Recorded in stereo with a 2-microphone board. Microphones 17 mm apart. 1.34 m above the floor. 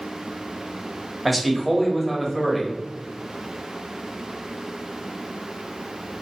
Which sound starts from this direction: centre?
A man speaking, at 1.2 s.